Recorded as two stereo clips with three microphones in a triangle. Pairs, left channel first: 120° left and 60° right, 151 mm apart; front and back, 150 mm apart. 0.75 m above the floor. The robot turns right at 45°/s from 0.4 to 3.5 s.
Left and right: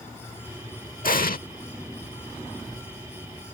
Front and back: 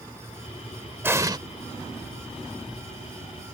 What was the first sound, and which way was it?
An explosion, 105° left.